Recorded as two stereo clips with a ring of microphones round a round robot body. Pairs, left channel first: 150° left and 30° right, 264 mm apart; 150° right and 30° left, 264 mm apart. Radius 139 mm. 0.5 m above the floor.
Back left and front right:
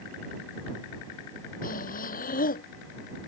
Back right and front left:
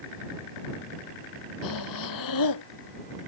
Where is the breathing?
150° right.